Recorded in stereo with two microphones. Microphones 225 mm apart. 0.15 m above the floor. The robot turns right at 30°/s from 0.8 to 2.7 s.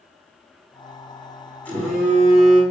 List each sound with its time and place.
1.6 s a phone buzzing: 10° left (ahead or behind), 4.5 m; by 2.6 s 20° right (ahead or behind), 4.5 m